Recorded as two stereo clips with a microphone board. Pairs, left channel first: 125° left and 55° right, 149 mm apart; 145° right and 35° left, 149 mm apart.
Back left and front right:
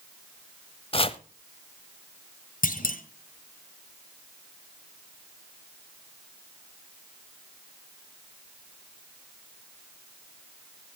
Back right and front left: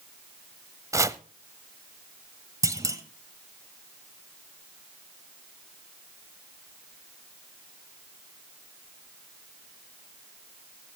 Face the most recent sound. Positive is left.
turn(degrees=100)